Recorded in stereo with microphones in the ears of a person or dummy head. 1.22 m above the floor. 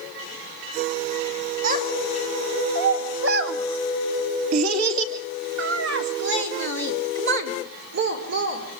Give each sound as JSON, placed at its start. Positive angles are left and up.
{"t": 1.6, "sound": "a child speaking", "side_deg": -40, "distance_m": 2.0}